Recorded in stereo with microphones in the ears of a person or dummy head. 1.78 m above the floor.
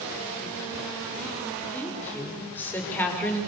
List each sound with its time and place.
1.7 s a woman speaking: 15° left (ahead or behind), 6 m